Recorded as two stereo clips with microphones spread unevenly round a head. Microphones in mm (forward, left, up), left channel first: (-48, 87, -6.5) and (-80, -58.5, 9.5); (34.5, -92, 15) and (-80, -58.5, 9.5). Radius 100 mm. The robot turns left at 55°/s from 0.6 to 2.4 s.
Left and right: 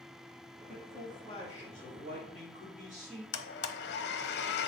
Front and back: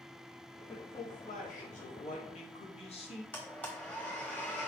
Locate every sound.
0.7 s a man speaking: 50° left, 2.5 m; by 3.2 s 45° right, 2.5 m
3.3 s a blender: 65° left, 0.7 m